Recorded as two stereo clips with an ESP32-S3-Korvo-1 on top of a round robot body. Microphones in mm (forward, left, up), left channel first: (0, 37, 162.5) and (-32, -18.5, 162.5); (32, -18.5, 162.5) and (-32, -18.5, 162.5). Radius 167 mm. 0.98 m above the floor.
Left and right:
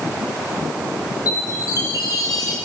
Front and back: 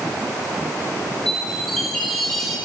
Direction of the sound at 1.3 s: 85° left.